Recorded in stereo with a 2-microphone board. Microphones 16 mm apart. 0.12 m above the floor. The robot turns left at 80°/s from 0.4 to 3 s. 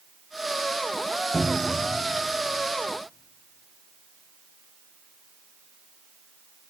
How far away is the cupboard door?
About 3 m.